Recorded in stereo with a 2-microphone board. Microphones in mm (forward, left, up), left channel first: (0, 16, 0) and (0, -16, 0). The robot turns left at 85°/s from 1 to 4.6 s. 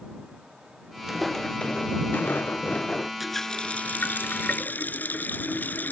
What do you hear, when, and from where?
1.1 s footsteps: 10° right (ahead or behind); by 3.1 s 10° left (ahead or behind)
3.2 s a running tap: 175° right; by 5.9 s 65° left